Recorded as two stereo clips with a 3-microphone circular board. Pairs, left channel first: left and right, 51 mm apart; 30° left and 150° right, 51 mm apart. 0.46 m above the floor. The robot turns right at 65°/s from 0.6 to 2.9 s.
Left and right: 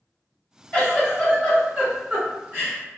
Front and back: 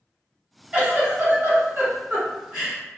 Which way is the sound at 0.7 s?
155° left.